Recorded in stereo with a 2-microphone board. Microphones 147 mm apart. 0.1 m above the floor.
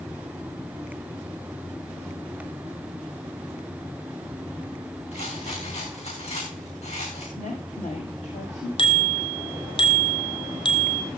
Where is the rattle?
50° left (ahead or behind), 9.5 m.